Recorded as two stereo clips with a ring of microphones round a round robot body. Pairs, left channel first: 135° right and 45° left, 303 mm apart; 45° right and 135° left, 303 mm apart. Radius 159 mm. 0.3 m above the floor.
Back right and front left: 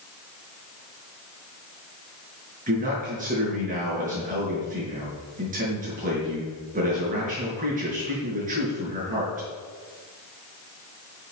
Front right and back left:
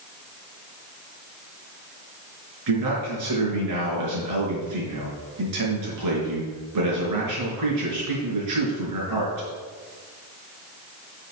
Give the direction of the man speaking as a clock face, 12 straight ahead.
8 o'clock.